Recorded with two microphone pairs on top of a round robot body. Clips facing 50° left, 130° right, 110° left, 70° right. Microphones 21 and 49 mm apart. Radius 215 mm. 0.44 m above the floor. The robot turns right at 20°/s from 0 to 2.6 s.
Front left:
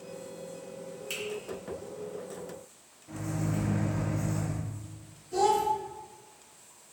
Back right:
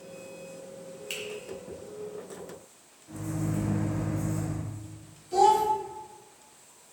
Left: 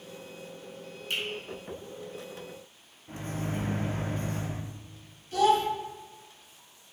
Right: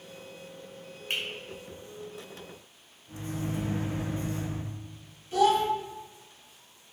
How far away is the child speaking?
About 1.7 m.